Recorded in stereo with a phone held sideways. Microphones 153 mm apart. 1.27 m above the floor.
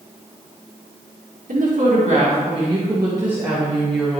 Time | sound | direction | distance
1.5 | a woman speaking | 60° right (ahead or behind) | 1.9 m